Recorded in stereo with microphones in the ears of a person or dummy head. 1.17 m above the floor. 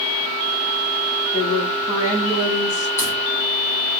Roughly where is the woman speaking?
Left.